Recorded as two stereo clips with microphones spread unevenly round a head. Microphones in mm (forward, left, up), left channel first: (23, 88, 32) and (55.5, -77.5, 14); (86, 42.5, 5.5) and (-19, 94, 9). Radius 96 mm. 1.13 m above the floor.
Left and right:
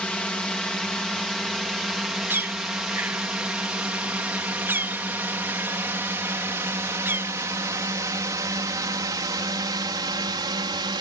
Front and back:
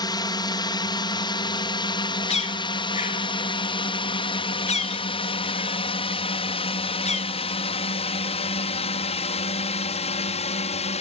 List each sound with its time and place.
0.0 s a drone: 15° left; by 11.0 s 20° right
2.3 s a bird: straight ahead